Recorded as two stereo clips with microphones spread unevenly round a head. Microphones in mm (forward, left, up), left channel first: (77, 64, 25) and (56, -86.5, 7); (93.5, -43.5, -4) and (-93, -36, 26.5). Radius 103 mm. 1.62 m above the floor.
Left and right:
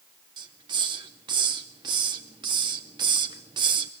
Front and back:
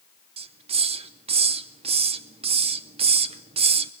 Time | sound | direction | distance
0.4 | a hiss | 160° right | 0.7 m